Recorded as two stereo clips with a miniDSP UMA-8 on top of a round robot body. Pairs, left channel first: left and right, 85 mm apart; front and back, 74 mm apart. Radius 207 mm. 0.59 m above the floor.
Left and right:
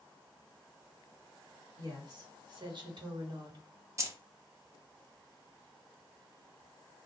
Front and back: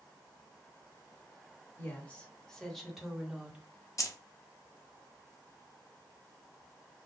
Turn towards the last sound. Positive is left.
turn(degrees=-40)